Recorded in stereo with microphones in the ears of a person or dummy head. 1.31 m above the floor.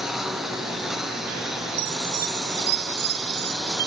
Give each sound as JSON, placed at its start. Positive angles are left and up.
{"t": 0.0, "sound": "a lawn mower", "side_deg": -5}
{"t": 1.8, "sound": "a chime", "side_deg": -55}